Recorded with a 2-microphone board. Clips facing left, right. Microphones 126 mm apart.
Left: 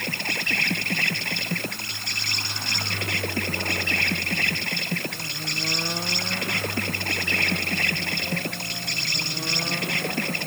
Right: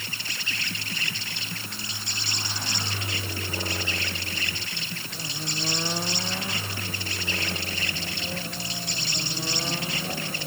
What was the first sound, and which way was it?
An insect, 65° left (ahead or behind).